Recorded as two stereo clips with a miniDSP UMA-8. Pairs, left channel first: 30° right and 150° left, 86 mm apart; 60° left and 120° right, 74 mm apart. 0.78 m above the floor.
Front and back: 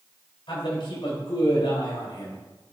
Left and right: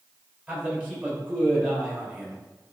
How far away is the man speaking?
About 4 m.